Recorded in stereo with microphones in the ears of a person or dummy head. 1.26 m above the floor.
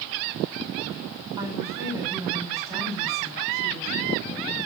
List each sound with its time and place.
1.4 s a woman speaking: 20° right (ahead or behind), 8.5 m